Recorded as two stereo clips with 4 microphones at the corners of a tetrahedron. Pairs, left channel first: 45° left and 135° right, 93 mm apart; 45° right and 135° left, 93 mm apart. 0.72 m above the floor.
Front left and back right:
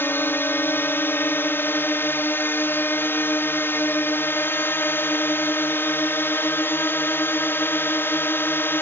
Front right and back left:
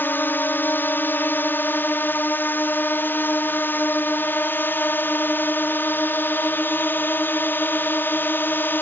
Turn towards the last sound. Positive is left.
turn(degrees=0)